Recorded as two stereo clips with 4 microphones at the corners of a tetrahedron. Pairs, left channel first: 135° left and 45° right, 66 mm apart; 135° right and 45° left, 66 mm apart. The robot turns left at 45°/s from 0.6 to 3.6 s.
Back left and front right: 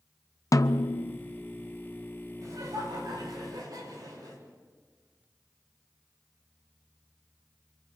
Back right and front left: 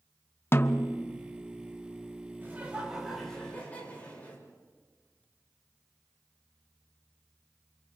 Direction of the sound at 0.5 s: 170° left.